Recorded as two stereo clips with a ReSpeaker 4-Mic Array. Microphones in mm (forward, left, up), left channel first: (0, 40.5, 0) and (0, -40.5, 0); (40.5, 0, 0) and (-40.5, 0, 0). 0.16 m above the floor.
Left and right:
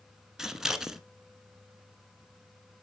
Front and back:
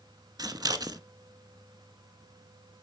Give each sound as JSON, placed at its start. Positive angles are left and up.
{"t": 0.4, "sound": "scissors", "azimuth_deg": -170, "distance_m": 0.6}